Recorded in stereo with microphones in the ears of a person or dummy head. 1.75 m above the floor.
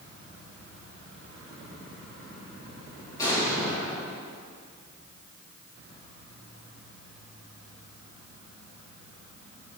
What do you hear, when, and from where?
3.2 s an explosion: 25° left (ahead or behind), 4.5 m